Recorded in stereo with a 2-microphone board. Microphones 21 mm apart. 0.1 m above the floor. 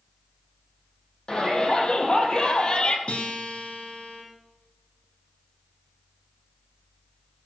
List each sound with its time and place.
1.3 s a shout: 45° left (ahead or behind), 4 m; by 3.0 s 50° left (ahead or behind), 2.5 m
3.1 s a guitar: 65° left (ahead or behind), 4.5 m